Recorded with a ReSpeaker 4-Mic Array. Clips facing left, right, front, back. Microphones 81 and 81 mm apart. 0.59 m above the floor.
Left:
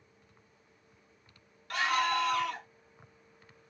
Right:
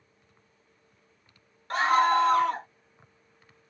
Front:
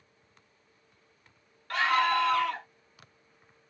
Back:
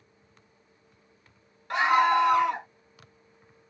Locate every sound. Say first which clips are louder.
1.7 s a scream: right 8 dB, back 4 dB; 120° right